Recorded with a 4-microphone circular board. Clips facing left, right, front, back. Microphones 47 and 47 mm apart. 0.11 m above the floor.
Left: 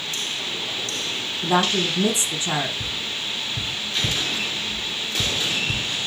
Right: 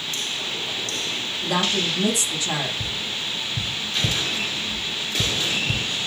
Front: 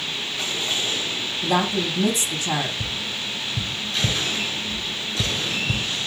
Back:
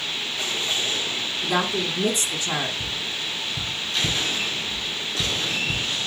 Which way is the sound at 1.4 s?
25° left.